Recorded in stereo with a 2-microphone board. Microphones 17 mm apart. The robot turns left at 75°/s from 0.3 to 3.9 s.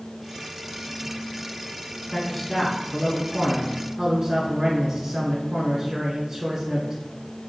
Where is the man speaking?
15° left (ahead or behind), 1.1 m; by 7.0 s 20° right (ahead or behind), 1.1 m.